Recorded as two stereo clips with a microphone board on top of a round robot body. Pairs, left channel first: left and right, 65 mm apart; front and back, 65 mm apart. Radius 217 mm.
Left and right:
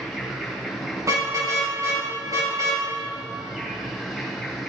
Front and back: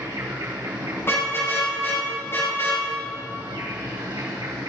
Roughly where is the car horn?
Ahead right.